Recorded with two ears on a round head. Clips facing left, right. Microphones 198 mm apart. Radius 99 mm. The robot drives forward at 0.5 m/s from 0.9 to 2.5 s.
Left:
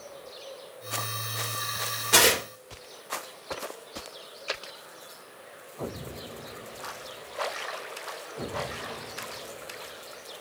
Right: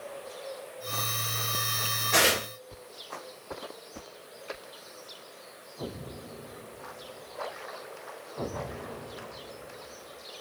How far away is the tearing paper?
About 1.4 m.